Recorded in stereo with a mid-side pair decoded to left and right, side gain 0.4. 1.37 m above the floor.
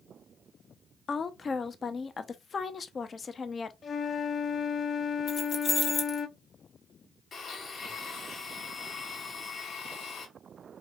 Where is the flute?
50° left, 0.5 m.